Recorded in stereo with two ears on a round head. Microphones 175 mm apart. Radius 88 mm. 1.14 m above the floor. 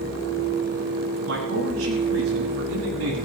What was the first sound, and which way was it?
A man speaking, 80° right.